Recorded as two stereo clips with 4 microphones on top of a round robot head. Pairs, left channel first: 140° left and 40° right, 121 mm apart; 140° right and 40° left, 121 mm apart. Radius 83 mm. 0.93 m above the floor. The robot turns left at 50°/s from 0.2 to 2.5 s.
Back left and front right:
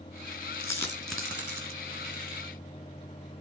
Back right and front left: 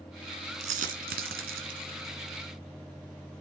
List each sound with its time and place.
0.6 s a dropped coin: 80° left, 1.8 m; by 1.8 s 20° left, 1.8 m